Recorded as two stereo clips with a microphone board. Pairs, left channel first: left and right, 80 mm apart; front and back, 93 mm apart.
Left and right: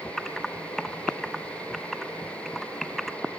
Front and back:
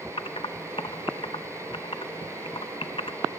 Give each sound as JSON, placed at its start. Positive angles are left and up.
{"t": 0.2, "sound": "typing on a keyboard", "azimuth_deg": 5, "distance_m": 0.6}